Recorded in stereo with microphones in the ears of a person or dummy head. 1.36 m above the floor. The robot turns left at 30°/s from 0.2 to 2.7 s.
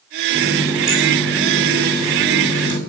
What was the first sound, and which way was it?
A running tap, 155° right.